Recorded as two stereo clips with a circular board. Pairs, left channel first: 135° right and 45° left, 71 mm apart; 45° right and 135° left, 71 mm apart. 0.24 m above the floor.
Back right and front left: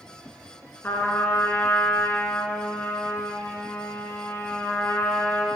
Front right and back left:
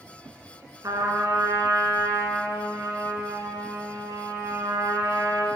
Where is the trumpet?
165° left, 1.2 m.